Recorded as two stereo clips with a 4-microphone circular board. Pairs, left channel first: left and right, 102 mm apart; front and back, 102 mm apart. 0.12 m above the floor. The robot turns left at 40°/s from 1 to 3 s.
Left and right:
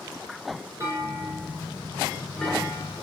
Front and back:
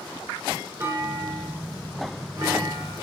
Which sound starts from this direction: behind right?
A clunk, at 0.8 s.